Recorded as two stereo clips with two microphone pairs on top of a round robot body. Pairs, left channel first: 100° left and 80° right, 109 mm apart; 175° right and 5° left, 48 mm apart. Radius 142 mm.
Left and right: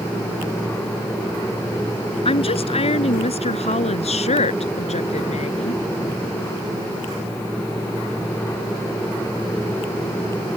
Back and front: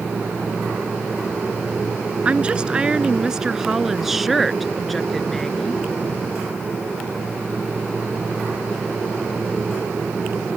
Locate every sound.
2.2 s a woman speaking: 75° left; by 5.8 s 110° left